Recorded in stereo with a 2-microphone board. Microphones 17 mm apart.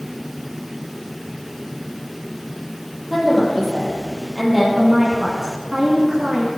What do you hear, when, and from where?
3.1 s a woman speaking: 10° right (ahead or behind), 7.5 m; by 4.7 s 15° right (ahead or behind), 6.5 m
4.8 s a woman speaking: 30° right (ahead or behind), 2.5 m